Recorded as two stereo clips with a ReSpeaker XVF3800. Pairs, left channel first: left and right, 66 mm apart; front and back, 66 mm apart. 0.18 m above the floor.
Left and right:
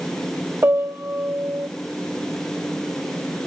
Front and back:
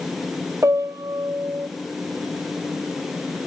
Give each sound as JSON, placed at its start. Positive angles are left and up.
{"t": 0.6, "sound": "a piano", "azimuth_deg": -140, "distance_m": 1.0}